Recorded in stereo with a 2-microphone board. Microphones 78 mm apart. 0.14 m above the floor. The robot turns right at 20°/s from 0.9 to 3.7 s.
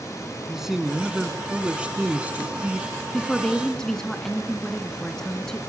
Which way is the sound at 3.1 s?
10° left (ahead or behind).